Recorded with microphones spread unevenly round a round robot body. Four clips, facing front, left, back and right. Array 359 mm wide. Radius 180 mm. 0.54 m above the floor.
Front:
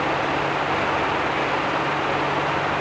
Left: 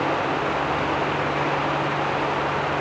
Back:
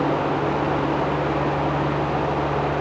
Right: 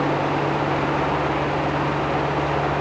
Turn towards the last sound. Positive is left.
No sound to turn to.